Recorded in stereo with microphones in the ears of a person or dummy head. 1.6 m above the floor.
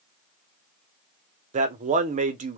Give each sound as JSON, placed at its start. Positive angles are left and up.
{"t": 1.5, "sound": "a man speaking", "side_deg": -45, "distance_m": 0.7}